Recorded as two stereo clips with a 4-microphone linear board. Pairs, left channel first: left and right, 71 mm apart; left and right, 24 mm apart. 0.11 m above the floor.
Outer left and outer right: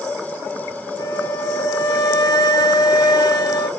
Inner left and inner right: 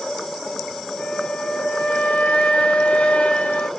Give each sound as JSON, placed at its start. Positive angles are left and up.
{"t": 1.0, "sound": "a flute", "side_deg": 75, "distance_m": 0.6}